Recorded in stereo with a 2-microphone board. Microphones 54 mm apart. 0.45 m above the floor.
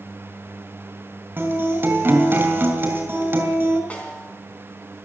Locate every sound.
1.4 s a guitar: 40° right (ahead or behind), 3 m
3.9 s a snare drum: 25° left (ahead or behind), 3.5 m